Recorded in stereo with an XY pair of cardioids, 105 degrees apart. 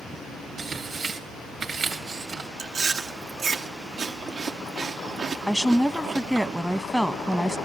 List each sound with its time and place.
0.6 s tearing paper: 40° right, 2.5 m
2.6 s chewing: 50° right, 1.6 m
5.5 s a woman speaking: straight ahead, 1.2 m